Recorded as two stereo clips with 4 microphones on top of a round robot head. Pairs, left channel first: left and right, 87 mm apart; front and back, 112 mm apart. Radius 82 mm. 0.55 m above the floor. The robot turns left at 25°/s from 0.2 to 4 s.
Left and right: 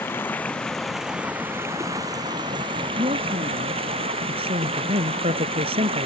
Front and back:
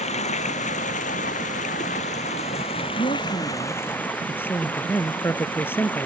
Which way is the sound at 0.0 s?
15° left.